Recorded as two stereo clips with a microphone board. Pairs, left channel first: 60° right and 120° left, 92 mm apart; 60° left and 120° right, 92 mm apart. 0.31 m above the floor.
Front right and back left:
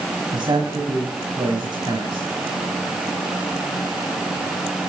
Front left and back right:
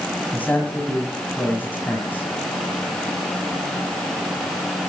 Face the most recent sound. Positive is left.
turn(degrees=130)